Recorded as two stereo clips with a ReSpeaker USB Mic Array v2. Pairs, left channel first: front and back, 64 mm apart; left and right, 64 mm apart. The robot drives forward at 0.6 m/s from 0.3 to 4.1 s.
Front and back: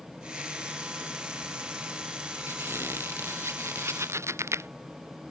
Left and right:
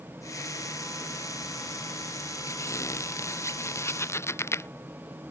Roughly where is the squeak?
Behind left.